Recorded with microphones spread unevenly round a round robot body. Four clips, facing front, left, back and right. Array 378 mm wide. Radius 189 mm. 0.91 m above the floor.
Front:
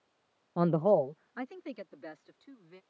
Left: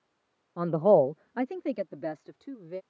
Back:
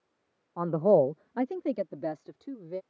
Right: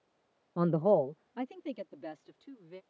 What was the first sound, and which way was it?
A man speaking, 30° right.